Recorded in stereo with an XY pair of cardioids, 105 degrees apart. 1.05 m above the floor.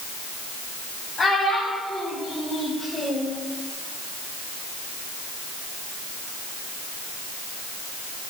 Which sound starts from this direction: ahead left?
A child speaking, at 1.2 s.